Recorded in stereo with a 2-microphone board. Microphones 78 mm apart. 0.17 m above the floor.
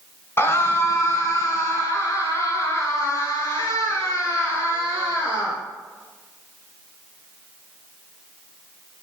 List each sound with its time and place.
0.4 s a scream: 30° left (ahead or behind), 1.7 m; by 5.6 s 40° left (ahead or behind), 4 m